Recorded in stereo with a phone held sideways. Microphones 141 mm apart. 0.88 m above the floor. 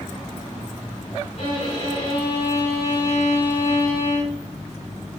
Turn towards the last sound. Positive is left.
turn(degrees=60)  # may be behind; listen again after turning